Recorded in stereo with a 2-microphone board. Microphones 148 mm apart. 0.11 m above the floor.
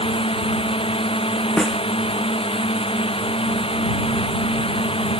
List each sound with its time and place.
0.0 s a drone: 40° left (ahead or behind)
1.6 s a snare drum: 5° left (ahead or behind)